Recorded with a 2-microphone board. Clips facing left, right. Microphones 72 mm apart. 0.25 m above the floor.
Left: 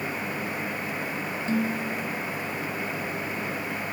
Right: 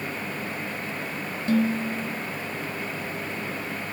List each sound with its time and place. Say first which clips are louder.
1.5 s dishes clattering: right 5 dB; 65° right (ahead or behind)